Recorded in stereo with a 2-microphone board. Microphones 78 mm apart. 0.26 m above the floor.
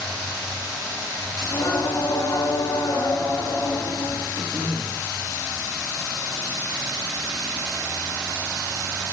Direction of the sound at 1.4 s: 40° left (ahead or behind).